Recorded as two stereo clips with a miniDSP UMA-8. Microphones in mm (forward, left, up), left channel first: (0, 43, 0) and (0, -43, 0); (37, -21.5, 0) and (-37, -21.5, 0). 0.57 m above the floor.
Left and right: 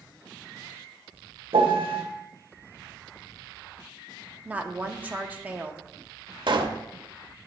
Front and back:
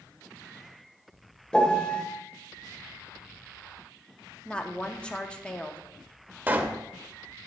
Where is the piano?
75° right, 0.8 m.